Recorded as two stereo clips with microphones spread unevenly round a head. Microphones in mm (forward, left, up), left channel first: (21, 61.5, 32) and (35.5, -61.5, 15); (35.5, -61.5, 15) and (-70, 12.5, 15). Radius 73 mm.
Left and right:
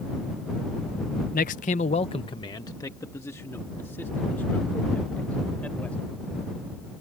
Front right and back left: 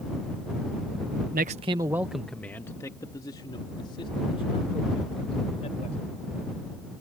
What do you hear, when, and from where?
1.3 s a man speaking: 120° left; by 6.3 s 20° left